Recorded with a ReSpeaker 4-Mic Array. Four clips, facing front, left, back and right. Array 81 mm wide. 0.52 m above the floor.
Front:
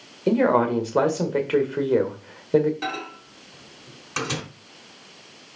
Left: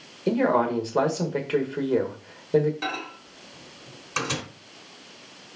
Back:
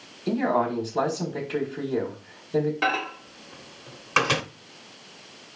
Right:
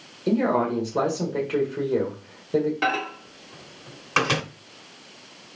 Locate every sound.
0.3 s a man speaking: 15° left, 1.7 m
2.8 s a microwave: 135° right, 1.0 m